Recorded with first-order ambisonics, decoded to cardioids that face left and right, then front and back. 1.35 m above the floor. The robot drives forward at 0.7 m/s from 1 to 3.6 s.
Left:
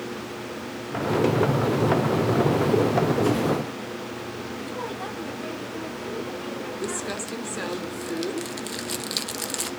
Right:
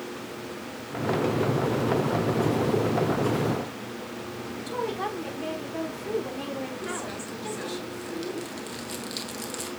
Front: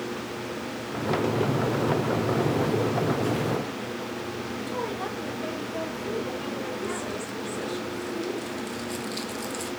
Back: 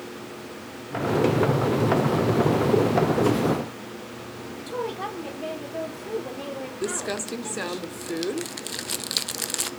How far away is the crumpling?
About 0.7 m.